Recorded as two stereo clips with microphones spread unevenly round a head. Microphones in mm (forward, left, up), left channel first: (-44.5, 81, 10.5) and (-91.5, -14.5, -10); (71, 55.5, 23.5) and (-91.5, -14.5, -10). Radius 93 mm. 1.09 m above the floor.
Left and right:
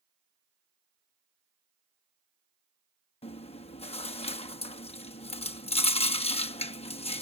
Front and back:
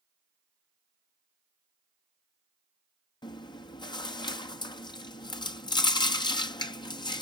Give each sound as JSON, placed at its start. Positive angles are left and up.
{"t": 3.2, "sound": "chewing", "azimuth_deg": 90}